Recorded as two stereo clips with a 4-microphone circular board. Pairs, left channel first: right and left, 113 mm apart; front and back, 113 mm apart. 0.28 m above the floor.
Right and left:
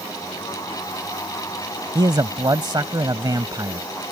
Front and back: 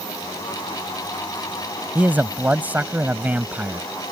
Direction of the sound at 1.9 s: 115° left.